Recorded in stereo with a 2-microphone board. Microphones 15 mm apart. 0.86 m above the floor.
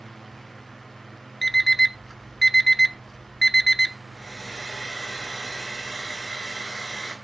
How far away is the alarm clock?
About 0.8 m.